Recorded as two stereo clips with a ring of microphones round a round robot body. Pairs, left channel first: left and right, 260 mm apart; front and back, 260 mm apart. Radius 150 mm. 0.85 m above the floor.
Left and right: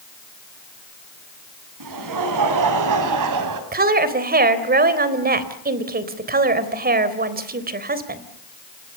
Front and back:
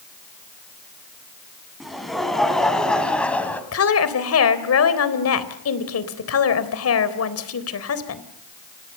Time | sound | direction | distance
1.8 | laughter | 90° right | 7.5 m
3.7 | a woman speaking | 35° right | 3.5 m